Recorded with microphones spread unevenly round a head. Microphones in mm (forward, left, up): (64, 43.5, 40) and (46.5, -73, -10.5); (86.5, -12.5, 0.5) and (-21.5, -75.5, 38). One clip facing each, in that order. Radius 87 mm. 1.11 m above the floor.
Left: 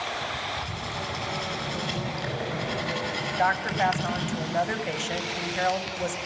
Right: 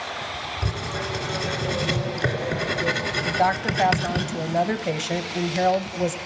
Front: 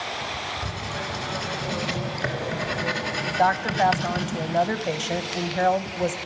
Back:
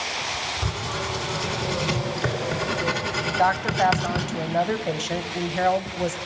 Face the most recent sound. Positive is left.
turn(degrees=-55)